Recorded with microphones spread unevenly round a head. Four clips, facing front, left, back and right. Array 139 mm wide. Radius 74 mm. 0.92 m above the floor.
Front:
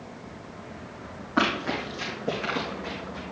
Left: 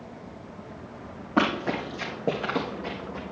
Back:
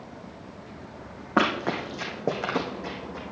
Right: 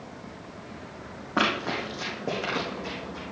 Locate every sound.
1.4 s running footsteps: 160° left, 2 m; by 3.2 s 140° left, 1.4 m